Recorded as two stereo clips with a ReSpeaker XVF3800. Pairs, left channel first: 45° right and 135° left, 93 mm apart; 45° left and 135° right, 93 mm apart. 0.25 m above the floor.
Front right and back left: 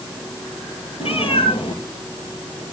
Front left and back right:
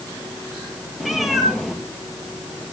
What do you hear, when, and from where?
1.0 s a cat meowing: 45° right, 3 m